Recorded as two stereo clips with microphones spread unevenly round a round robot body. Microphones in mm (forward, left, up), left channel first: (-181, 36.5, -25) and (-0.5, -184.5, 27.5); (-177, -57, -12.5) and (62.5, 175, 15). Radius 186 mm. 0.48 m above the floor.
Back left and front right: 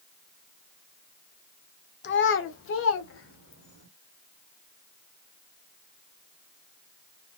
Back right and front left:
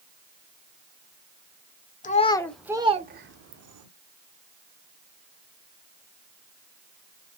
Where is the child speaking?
165° left, 0.7 m; by 3.9 s 85° left, 0.9 m.